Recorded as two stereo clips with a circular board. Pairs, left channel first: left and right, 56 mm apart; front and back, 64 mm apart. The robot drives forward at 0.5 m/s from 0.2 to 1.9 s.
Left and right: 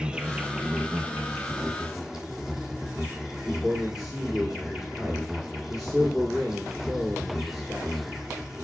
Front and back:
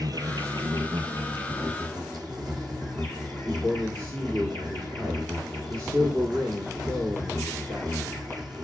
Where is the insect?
165° right, 0.7 m; by 8.6 s 175° right, 1.5 m.